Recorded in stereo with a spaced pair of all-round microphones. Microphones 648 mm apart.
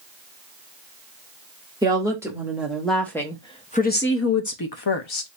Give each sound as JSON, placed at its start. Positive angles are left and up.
{"t": 1.8, "sound": "a woman speaking", "side_deg": -5, "distance_m": 1.9}